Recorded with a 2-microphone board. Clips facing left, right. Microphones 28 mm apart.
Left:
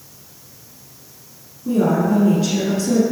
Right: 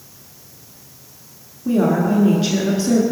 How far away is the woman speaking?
About 1.4 m.